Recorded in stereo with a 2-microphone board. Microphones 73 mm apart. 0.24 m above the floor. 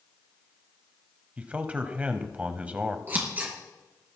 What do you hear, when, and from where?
1.4 s a man speaking: 20° right (ahead or behind), 1.1 m
3.1 s scissors: 30° right (ahead or behind), 3.5 m